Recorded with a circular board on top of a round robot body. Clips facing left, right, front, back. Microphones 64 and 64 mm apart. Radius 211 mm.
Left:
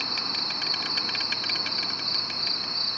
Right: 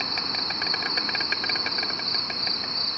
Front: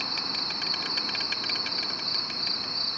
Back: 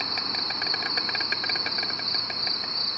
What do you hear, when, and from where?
0.0 s an insect: 140° right